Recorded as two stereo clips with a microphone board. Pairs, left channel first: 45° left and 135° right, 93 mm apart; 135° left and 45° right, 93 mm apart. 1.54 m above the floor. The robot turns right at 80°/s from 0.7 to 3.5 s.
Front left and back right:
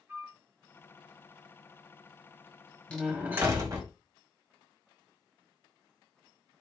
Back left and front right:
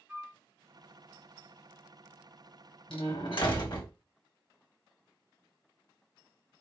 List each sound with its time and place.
0.1 s a flute: 100° right, 0.9 m
2.9 s a door slam: 120° left, 1.7 m; by 3.9 s 170° left, 1.7 m